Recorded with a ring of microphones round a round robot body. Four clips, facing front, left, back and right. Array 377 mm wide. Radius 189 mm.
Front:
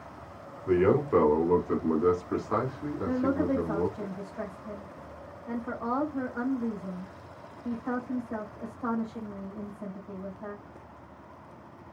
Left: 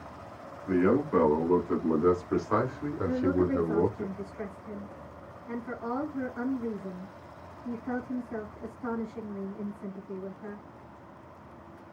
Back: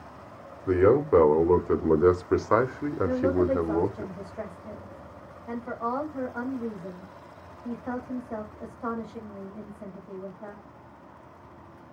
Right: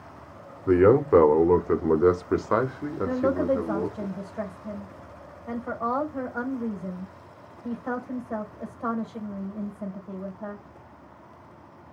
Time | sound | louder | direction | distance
0.7 | a man speaking | right 7 dB, back 3 dB | 100° right | 1.7 m
3.0 | a woman speaking | right 3 dB, back 3 dB | 95° right | 2.5 m